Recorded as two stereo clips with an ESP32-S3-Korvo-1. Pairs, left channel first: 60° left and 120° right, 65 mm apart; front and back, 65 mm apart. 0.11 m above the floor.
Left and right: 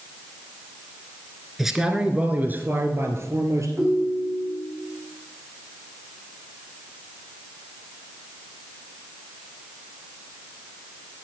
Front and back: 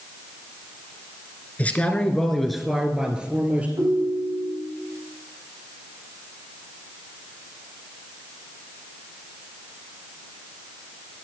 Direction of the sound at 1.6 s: 40° right.